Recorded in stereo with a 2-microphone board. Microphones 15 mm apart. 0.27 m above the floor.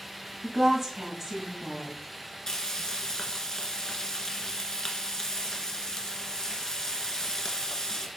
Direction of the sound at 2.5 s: 35° left (ahead or behind).